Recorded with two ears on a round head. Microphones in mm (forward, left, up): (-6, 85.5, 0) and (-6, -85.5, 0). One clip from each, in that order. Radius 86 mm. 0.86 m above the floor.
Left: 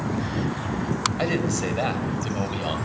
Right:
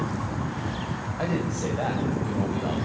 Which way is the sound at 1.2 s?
65° left (ahead or behind).